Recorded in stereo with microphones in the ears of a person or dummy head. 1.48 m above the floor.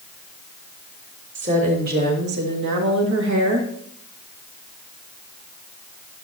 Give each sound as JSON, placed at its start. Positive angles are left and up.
{"t": 1.4, "sound": "a woman speaking", "side_deg": -40, "distance_m": 2.5}